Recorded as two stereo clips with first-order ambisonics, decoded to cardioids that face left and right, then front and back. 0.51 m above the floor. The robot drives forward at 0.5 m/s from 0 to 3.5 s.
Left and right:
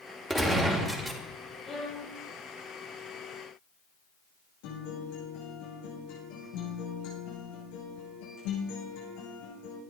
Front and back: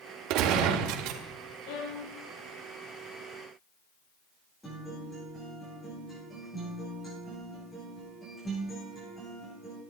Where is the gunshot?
Straight behind, 1.8 m.